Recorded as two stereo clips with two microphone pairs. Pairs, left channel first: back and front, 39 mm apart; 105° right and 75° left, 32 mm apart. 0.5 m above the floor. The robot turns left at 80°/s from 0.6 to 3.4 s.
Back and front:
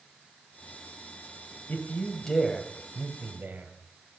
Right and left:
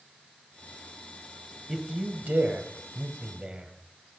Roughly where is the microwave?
I don't hear a microwave.